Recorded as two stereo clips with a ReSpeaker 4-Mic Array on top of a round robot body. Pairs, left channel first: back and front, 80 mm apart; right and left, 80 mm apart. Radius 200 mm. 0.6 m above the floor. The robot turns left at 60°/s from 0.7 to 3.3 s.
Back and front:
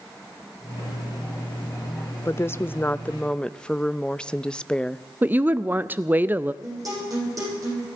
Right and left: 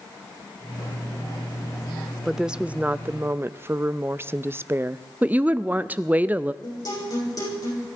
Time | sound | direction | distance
2.2 | a woman speaking | 175° left | 0.6 m
5.2 | a woman speaking | 40° left | 0.6 m
6.6 | a guitar | 45° right | 9 m